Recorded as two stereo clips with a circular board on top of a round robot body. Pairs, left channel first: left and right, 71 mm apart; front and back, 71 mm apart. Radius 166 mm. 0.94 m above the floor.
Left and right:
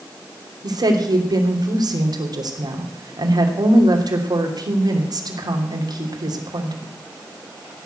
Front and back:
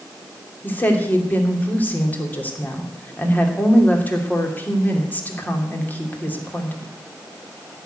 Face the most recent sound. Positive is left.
turn(degrees=-65)